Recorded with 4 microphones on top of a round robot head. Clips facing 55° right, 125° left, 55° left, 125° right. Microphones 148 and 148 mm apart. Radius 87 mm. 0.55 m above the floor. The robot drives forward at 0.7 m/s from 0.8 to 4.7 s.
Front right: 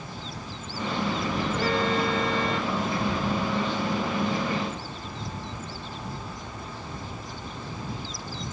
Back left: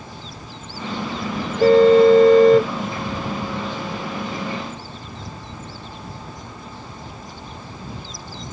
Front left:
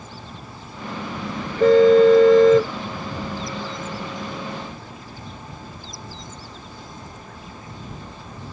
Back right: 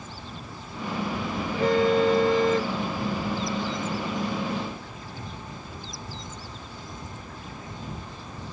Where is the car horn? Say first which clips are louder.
Back left 18 dB, front left 10 dB; 65° left; by 2.7 s 75° left.